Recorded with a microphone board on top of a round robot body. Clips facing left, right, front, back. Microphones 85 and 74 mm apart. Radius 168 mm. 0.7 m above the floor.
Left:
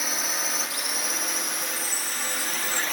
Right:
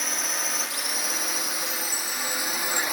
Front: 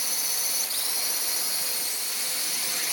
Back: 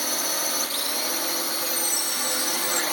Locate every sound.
0.0 s a drone: 175° left; by 2.9 s 165° right
1.6 s a chime: 160° right